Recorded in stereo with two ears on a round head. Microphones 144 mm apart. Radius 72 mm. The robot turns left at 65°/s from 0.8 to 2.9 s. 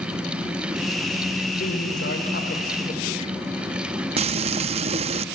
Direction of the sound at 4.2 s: 40° right (ahead or behind).